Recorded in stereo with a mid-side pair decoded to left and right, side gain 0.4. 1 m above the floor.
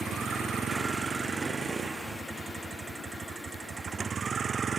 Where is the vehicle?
45° right; by 4.8 s 40° right.